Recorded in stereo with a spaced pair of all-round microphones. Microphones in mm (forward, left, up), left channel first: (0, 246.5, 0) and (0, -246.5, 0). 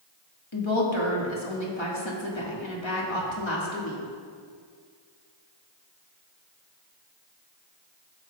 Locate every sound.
0.5 s a woman speaking: 65° left (ahead or behind), 1.7 m